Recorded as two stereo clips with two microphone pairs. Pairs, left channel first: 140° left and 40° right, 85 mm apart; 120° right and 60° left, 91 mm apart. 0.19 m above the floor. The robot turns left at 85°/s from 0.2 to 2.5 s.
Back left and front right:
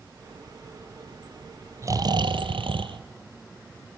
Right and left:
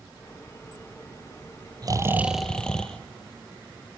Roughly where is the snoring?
Ahead.